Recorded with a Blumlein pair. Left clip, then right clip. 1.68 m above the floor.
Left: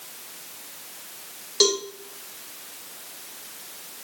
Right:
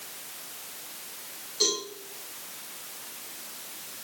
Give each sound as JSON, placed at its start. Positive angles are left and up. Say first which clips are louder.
{"t": 1.6, "sound": "a cowbell", "louder": "left 6 dB", "azimuth_deg": 35, "distance_m": 3.0}